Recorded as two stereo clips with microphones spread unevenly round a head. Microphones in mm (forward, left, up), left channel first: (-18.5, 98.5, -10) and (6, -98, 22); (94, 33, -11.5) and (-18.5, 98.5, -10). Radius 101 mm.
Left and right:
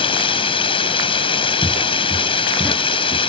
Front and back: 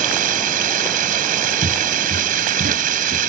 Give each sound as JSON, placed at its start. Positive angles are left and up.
{"t": 0.0, "sound": "running water", "azimuth_deg": 165}
{"t": 1.6, "sound": "footsteps", "azimuth_deg": -175}